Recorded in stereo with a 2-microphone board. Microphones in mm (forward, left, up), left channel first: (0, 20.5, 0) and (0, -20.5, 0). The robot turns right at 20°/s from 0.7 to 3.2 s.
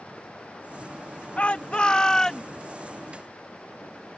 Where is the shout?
30° left (ahead or behind); by 2.5 s 10° left (ahead or behind).